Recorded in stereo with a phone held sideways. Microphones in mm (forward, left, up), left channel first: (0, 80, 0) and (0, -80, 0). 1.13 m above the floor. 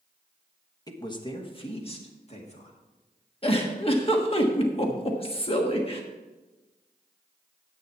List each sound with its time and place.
0.9 s a woman speaking: 25° left (ahead or behind), 1.2 m; by 2.8 s 45° left (ahead or behind), 2.5 m
3.4 s a giggle: 35° left (ahead or behind), 1.2 m